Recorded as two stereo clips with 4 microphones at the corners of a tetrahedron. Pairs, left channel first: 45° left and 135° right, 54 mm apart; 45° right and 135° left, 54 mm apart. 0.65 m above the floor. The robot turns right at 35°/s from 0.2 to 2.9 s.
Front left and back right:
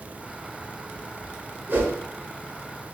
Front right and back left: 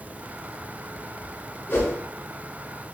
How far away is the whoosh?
About 1.3 m.